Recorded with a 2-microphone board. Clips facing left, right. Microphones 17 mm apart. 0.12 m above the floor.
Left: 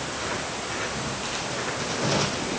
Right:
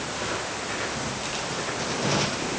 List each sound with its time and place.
Only background noise.